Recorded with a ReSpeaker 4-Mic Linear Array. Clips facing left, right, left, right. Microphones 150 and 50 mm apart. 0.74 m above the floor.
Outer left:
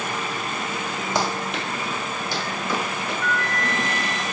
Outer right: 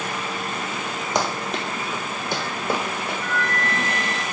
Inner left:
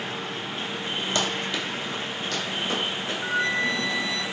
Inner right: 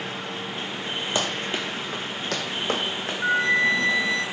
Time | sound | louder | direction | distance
1.1 | running footsteps | outer right 1 dB, inner right 1 dB | 20° right (ahead or behind) | 0.8 m
3.2 | a flute | even, inner right 5 dB | 30° right (ahead or behind) | 0.6 m